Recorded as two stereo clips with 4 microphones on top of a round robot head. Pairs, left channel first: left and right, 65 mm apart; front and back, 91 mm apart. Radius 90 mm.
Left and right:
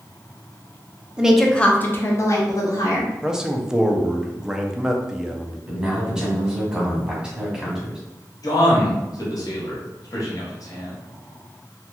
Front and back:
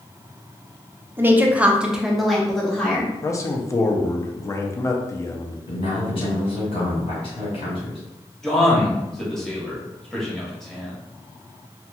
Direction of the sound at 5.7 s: 15° right.